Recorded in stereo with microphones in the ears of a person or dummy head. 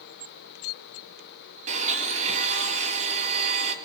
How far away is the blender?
About 2.5 m.